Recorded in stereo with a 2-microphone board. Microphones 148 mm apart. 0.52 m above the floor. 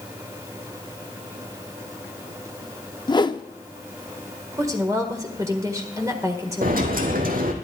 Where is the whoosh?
30° left (ahead or behind), 0.5 m.